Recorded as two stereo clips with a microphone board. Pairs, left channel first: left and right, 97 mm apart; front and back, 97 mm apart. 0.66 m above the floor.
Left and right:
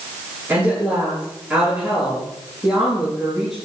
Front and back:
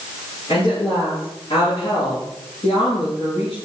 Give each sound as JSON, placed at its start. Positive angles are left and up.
{"t": 0.5, "sound": "a woman speaking", "azimuth_deg": -15, "distance_m": 9.0}